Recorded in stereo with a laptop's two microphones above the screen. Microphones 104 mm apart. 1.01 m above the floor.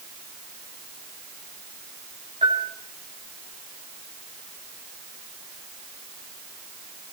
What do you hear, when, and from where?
2.4 s a bell: 85° right, 8.5 m